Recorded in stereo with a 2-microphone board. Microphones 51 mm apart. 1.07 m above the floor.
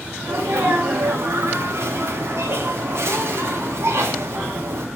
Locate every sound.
0.2 s a sneeze: 75° right (ahead or behind), 2 m